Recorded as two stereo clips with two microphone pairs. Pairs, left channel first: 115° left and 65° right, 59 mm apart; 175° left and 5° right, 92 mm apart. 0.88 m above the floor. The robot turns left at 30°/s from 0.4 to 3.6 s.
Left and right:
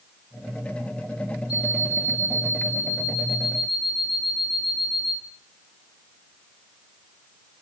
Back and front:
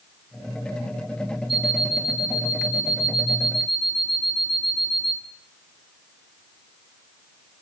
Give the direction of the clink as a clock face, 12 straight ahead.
I don't hear a clink.